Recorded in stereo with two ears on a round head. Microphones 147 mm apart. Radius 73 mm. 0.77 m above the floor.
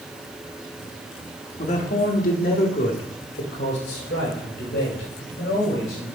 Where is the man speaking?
45° left (ahead or behind), 1.2 m; by 6.1 s 80° left, 4 m.